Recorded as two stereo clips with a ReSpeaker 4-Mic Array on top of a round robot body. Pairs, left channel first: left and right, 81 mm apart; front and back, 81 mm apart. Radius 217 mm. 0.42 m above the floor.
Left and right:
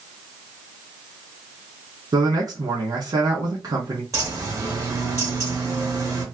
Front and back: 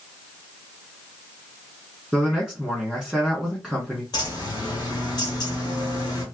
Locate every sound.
2.1 s a man speaking: 90° right, 1.9 m
4.1 s a bird: 40° right, 1.9 m